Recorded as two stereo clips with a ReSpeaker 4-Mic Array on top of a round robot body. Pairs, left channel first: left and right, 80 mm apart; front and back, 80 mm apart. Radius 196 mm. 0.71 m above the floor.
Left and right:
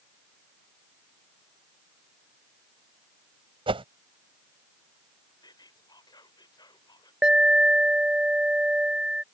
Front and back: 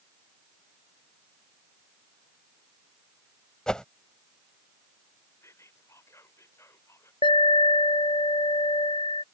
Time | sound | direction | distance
3.7 | a whoosh | 80° right | ?
5.4 | whispering | 55° left | ?
7.2 | an alarm | 10° right | ?